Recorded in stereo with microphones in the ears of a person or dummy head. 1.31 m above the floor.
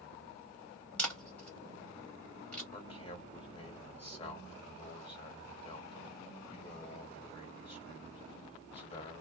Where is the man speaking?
35° left (ahead or behind), 1.3 m.